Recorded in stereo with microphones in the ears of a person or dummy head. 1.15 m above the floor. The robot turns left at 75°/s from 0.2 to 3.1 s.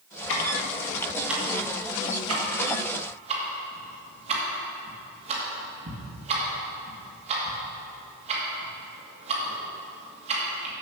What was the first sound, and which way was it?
Ticking, 70° left (ahead or behind).